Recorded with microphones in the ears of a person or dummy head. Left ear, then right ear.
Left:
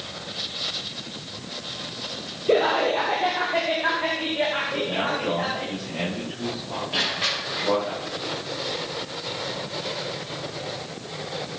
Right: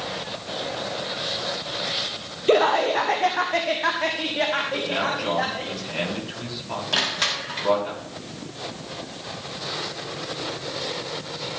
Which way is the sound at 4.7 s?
70° right (ahead or behind).